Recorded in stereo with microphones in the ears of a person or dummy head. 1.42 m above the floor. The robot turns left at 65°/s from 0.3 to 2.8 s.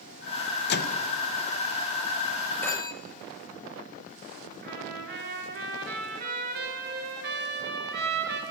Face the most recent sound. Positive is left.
turn(degrees=-65)  # may be behind; listen again after turning